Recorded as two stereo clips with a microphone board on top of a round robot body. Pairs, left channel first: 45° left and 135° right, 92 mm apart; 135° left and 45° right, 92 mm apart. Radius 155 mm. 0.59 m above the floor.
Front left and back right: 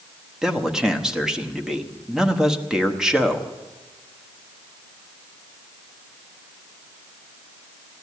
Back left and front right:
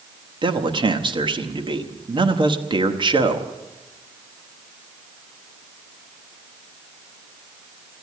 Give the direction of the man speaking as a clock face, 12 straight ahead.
2 o'clock.